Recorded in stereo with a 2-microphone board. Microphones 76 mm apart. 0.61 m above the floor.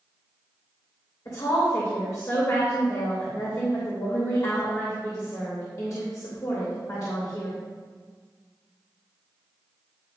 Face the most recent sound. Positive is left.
turn(degrees=45)  # may be behind; listen again after turning